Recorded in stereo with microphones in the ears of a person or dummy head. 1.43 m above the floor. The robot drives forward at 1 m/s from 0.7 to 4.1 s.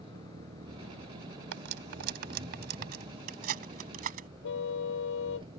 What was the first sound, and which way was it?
An engine running, 35° right (ahead or behind).